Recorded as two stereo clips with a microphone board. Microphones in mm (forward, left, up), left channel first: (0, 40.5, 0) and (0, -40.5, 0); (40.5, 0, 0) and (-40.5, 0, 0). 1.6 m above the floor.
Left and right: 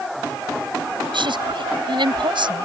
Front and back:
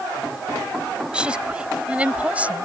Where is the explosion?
I don't hear an explosion.